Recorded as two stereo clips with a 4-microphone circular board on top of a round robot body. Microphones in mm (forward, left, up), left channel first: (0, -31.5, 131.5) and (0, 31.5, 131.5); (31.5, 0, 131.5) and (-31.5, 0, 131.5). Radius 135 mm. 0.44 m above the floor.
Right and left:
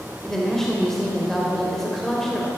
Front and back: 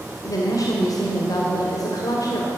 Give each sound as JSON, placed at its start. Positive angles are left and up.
{"t": 0.2, "sound": "a woman speaking", "azimuth_deg": -5, "distance_m": 2.5}